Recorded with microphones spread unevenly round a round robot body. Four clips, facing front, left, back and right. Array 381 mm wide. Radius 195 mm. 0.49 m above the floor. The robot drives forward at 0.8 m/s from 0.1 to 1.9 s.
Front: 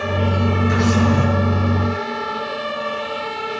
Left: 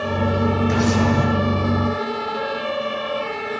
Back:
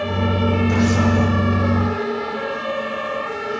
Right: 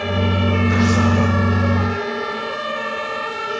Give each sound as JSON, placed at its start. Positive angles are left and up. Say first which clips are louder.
{"t": 0.7, "sound": "a camera shutter", "louder": "right 1 dB, front 2 dB", "azimuth_deg": 80, "distance_m": 8.0}